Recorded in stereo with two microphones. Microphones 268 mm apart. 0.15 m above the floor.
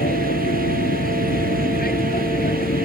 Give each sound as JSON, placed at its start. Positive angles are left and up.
{"t": 0.0, "sound": "an aircraft", "side_deg": 35}